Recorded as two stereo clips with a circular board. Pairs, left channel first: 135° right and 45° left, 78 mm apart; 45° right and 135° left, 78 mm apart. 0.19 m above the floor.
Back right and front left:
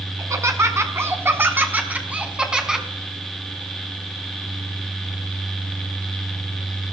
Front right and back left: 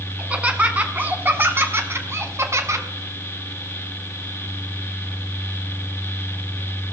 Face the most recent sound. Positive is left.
turn(degrees=125)